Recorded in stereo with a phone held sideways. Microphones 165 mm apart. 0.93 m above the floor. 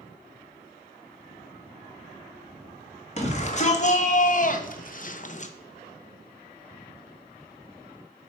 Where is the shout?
40° left (ahead or behind), 1.5 m; by 5.5 s 45° left (ahead or behind), 0.6 m.